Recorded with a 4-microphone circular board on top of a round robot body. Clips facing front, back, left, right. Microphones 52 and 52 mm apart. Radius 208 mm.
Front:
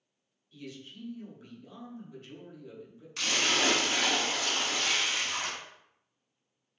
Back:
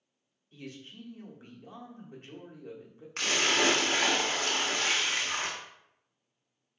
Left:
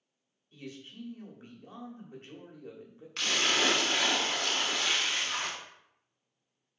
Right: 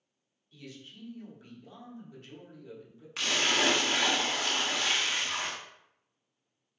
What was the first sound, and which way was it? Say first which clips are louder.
A man speaking: even, left 3 dB; 140° left.